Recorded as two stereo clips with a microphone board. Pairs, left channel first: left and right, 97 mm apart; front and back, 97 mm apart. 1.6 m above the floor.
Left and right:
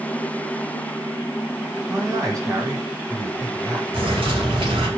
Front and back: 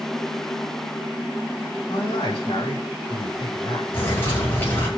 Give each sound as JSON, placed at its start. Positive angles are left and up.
{"t": 1.9, "sound": "a man speaking", "azimuth_deg": -40, "distance_m": 5.0}
{"t": 3.9, "sound": "a bird", "azimuth_deg": -65, "distance_m": 6.0}